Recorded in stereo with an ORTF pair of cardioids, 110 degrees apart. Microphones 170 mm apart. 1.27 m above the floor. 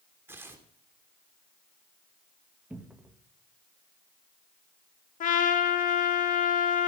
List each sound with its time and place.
0.3 s tearing paper: 15° right, 3 m
2.7 s a cupboard door: 10° right, 1.5 m
5.2 s a trumpet: 50° left, 2 m